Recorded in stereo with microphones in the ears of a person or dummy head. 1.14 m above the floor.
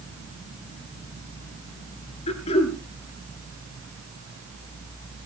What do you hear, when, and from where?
2.3 s throat clearing: 35° left (ahead or behind), 3 m